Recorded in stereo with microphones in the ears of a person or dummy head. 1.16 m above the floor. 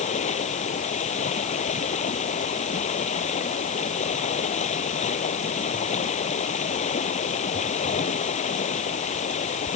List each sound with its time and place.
0.0 s running water: 40° left (ahead or behind)